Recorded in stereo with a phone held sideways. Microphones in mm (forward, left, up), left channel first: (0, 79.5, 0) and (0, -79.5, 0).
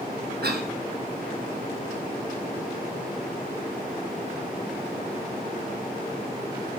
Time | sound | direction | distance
0.4 | a cough | 85° right | 1.5 m